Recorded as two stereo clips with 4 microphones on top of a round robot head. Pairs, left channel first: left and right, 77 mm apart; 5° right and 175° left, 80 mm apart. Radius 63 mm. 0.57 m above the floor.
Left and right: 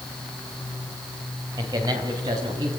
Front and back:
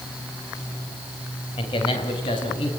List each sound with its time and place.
1.6 s a man speaking: 40° right, 3 m